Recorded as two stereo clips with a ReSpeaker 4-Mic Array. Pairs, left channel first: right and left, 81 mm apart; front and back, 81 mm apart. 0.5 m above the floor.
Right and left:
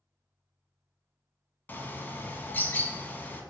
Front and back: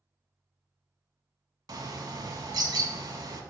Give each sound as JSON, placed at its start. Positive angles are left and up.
{"t": 1.7, "sound": "a bird", "azimuth_deg": -155, "distance_m": 0.6}